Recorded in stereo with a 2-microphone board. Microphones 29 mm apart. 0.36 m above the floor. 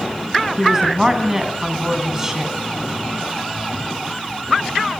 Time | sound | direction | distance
0.6 | a woman speaking | 15° right (ahead or behind) | 3.5 m